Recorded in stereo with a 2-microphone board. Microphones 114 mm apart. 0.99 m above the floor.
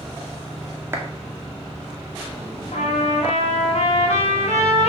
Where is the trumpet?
90° left, 3 m.